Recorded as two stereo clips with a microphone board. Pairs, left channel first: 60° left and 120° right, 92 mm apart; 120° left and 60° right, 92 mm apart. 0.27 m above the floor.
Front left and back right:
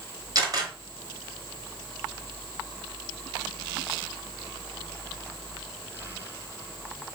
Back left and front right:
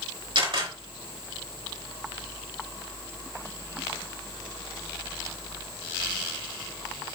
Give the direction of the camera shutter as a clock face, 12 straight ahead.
3 o'clock.